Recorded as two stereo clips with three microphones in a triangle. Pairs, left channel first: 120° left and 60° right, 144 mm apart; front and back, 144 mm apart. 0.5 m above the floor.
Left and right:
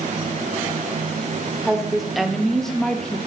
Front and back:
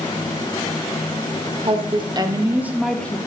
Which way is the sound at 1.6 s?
145° right.